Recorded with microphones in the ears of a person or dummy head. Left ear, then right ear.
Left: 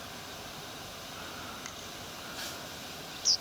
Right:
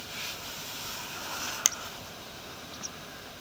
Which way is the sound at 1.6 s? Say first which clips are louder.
Right 15 dB; 70° right (ahead or behind).